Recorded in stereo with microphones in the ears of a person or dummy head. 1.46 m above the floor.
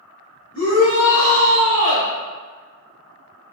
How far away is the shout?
About 1.4 m.